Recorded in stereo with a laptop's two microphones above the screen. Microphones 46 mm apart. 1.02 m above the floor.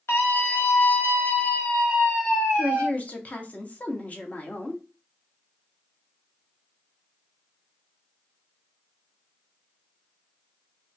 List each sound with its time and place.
0.1 s a scream: 70° left (ahead or behind), 1.4 m; by 2.9 s 5° right (ahead or behind), 1.5 m
2.6 s a woman speaking: 35° left (ahead or behind), 0.7 m